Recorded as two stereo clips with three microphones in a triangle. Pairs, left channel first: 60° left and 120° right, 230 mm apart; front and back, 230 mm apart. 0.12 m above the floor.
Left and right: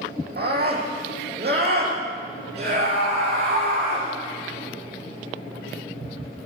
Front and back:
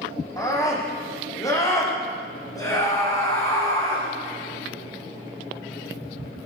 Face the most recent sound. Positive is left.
turn(degrees=-75)